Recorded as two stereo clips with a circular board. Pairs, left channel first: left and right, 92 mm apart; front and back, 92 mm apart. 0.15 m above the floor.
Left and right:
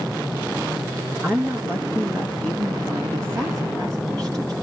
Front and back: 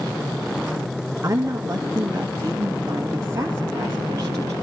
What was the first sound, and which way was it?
A woman speaking, 145° right.